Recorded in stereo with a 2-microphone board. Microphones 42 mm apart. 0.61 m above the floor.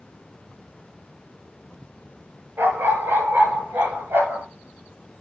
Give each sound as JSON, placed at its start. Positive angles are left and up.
{"t": 2.6, "sound": "a dog barking", "side_deg": -75, "distance_m": 4.5}